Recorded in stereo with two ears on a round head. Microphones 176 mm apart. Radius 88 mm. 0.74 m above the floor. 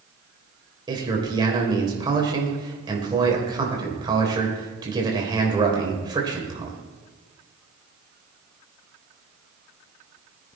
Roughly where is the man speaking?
Right.